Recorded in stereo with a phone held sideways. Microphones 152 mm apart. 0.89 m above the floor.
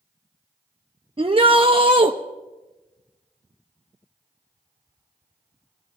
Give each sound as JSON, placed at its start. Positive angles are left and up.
{"t": 1.2, "sound": "a shout", "side_deg": -35, "distance_m": 0.7}